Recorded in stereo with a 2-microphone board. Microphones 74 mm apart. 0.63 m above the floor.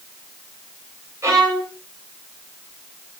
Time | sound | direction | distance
1.2 | a violin | 40° right (ahead or behind) | 3 m